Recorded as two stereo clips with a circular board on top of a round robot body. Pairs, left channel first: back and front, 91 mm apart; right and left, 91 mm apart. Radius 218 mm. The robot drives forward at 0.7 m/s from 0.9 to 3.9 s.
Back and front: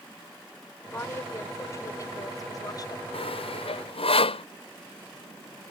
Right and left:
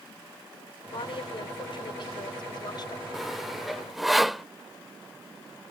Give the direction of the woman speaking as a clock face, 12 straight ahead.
4 o'clock.